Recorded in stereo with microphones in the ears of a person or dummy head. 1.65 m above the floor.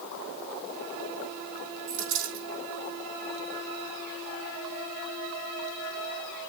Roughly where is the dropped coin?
Right.